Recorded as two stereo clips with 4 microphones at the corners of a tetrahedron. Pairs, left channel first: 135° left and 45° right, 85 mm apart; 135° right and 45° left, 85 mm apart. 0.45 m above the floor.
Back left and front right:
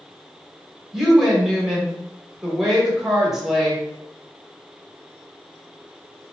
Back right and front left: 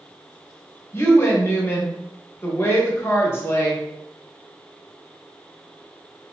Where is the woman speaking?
125° right, 0.9 m.